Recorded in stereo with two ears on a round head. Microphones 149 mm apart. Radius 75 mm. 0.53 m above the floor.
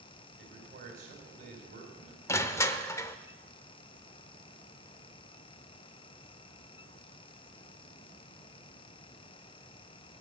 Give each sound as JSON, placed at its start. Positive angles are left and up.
{"t": 0.4, "sound": "a man speaking", "side_deg": -45, "distance_m": 4.0}
{"t": 2.3, "sound": "crushing", "side_deg": 15, "distance_m": 0.7}